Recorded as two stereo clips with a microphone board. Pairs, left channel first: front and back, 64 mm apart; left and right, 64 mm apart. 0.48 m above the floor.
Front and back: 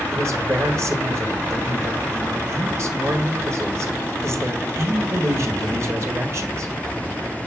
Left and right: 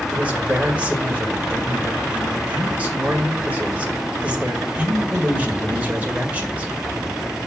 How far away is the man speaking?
About 1.6 m.